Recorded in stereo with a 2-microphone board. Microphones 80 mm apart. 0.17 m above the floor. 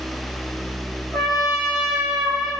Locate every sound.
1.1 s a trumpet: centre (ahead or behind), 5.5 m